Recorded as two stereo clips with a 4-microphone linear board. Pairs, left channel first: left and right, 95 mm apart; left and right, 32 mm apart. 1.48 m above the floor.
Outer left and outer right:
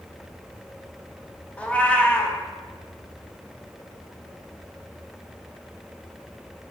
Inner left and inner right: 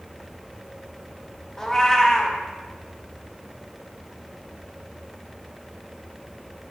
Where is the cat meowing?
15° left (ahead or behind), 1.1 m.